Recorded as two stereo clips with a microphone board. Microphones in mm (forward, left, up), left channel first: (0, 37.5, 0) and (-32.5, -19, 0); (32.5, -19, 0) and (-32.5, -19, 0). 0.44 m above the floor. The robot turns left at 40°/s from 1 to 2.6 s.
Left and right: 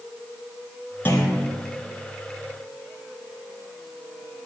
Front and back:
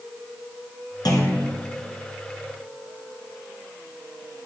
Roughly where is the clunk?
Ahead.